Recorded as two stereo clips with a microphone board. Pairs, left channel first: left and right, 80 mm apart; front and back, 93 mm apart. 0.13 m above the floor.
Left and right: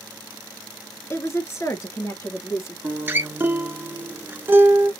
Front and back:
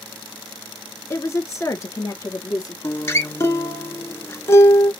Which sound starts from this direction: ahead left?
A woman speaking, at 1.1 s.